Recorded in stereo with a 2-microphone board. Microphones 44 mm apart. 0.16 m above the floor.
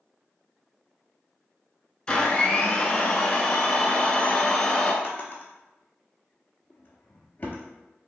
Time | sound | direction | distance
2.1 | a blender | 20° left (ahead or behind) | 0.5 m
5.0 | a drawer | 30° left (ahead or behind) | 0.7 m